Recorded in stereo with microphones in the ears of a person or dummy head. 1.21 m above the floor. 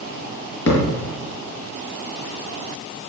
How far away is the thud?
About 5.5 m.